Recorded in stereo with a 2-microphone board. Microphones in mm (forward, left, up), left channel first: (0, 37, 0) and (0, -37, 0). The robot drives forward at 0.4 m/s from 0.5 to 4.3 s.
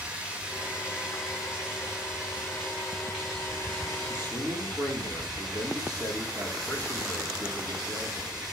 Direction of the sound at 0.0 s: 15° right (ahead or behind).